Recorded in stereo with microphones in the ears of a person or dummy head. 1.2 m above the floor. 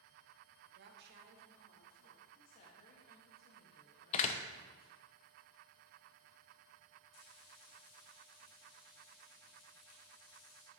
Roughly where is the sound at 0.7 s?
Right.